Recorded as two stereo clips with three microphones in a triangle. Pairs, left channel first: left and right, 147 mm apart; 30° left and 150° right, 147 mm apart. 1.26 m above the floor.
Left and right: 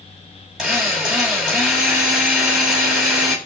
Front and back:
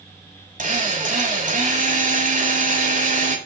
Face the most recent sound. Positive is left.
turn(degrees=-175)